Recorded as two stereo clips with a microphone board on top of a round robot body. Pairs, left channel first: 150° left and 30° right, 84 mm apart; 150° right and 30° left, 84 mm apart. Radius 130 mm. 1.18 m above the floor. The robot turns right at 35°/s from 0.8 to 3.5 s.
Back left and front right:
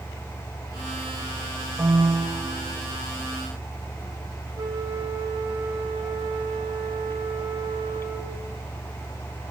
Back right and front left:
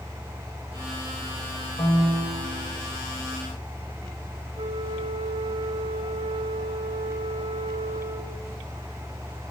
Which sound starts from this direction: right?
A piano, at 1.8 s.